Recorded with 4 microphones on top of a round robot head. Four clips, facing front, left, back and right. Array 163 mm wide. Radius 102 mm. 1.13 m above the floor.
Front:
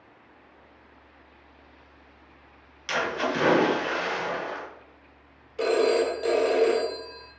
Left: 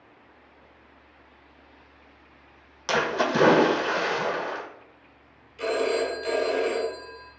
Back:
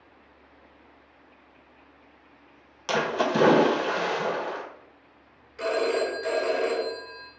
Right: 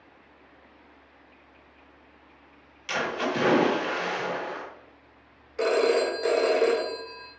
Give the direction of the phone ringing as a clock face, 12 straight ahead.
2 o'clock.